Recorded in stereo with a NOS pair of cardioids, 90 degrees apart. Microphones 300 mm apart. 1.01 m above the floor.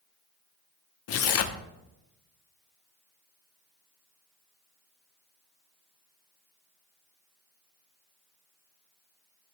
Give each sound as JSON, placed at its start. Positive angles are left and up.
{"t": 1.1, "sound": "tearing paper", "azimuth_deg": 50, "distance_m": 1.0}